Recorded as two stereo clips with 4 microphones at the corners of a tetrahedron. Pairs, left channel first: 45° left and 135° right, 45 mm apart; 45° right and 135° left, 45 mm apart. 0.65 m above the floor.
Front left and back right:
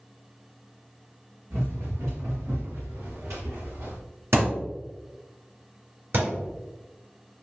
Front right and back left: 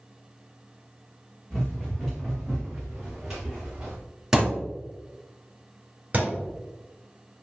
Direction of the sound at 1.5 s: 120° right.